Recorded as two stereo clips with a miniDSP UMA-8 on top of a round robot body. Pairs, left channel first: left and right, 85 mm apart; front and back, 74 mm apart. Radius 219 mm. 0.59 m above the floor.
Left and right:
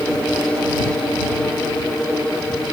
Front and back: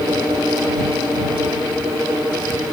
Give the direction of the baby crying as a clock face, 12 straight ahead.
No baby crying in this recording.